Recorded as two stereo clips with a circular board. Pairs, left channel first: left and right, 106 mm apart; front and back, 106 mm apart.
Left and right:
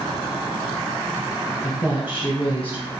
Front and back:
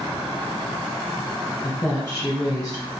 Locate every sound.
1.6 s a woman speaking: 55° left, 1.3 m